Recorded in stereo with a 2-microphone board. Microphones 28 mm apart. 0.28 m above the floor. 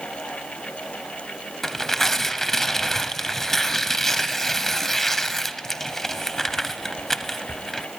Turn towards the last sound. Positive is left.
turn(degrees=10)  # may be behind; listen again after turning